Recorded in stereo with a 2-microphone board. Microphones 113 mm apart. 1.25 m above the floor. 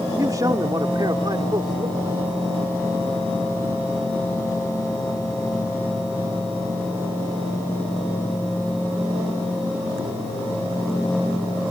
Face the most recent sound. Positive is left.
turn(degrees=-45)  # may be behind; listen again after turning